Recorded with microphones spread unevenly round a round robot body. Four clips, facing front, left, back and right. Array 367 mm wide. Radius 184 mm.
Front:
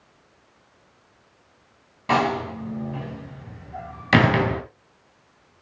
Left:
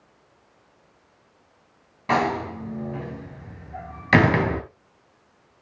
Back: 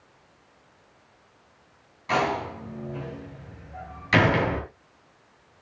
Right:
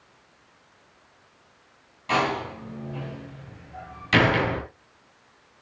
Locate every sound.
2.1 s a door slam: 45° left, 3 m